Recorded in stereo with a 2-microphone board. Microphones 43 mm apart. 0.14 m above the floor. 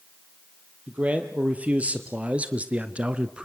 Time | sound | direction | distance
0.9 | a man speaking | 35° right (ahead or behind) | 3.5 m